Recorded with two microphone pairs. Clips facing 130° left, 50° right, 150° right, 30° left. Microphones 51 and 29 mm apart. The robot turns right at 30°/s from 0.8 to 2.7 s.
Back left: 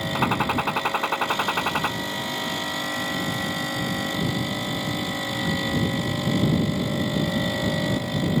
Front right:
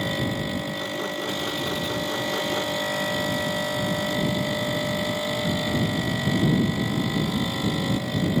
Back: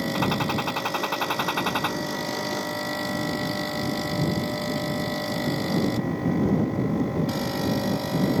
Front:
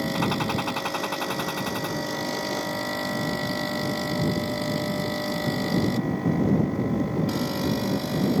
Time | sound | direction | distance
0.1 | a gunshot | 125° left | ?